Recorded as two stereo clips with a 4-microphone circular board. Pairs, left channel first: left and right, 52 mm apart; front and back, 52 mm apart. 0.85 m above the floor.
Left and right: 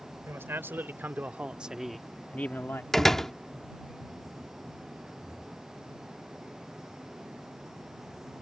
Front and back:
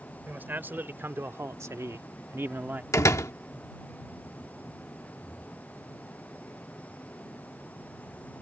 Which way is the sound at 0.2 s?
125° right.